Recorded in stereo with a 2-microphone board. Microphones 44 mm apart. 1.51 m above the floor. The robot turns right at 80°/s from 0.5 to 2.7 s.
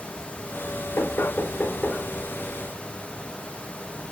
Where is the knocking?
85° left, 4.5 m; by 2.0 s 10° left (ahead or behind), 4.5 m.